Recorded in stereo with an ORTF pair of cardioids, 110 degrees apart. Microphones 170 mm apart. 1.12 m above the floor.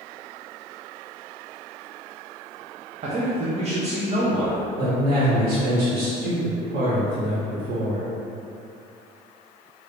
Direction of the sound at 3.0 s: 40° right.